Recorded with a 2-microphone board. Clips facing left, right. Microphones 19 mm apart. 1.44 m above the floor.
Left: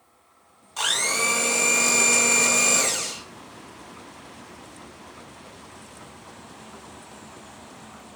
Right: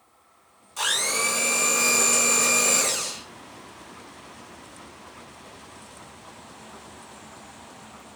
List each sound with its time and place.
0.8 s a blender: 30° left (ahead or behind), 1.4 m